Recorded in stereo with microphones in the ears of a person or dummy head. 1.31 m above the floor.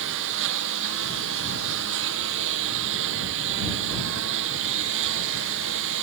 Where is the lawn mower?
65° right (ahead or behind).